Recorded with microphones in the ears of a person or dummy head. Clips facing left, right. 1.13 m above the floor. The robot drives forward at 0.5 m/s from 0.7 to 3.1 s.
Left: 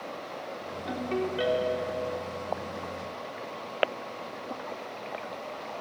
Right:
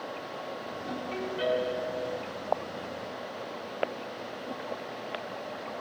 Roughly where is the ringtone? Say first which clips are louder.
Left 5 dB; left.